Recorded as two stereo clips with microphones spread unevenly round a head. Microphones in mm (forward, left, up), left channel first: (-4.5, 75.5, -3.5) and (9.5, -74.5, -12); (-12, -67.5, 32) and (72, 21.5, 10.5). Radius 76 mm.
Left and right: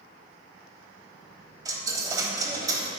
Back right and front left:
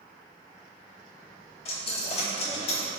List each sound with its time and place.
1.6 s a dropped coin: 150° right, 1.0 m